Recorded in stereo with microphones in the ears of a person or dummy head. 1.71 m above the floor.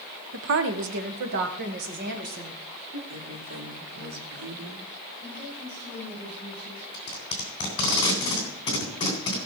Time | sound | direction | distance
0.3 | a woman speaking | 60° right (ahead or behind) | 0.9 m
3.1 | a woman speaking | 85° right | 4 m
5.2 | a woman speaking | 35° left (ahead or behind) | 7.5 m
6.9 | tape being pulled | 25° left (ahead or behind) | 3 m